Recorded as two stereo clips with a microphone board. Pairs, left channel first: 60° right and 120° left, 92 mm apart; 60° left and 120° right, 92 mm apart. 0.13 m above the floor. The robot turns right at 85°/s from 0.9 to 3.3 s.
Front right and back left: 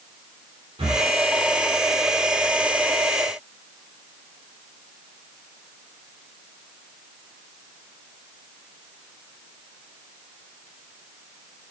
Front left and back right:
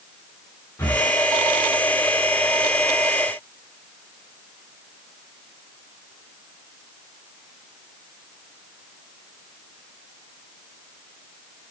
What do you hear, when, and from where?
0.8 s breathing: 125° left, 4 m; by 1.1 s 140° left, 4 m